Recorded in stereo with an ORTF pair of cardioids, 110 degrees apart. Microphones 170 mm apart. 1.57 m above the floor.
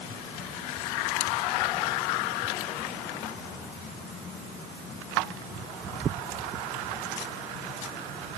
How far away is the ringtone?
I don't hear a ringtone.